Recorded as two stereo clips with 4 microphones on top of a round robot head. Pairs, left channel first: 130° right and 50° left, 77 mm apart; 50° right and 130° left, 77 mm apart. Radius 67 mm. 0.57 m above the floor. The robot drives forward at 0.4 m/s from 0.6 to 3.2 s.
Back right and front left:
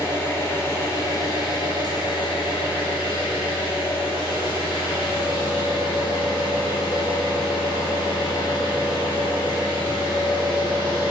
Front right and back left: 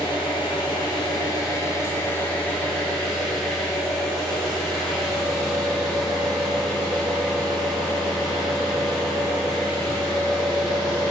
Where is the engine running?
70° right, 0.8 m; by 11.1 s 135° right, 1.1 m.